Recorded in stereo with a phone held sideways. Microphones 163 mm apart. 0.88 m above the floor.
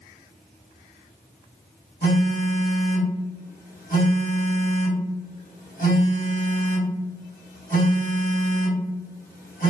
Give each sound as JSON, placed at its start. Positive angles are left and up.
{"t": 2.0, "sound": "a phone buzzing", "side_deg": 60, "distance_m": 1.8}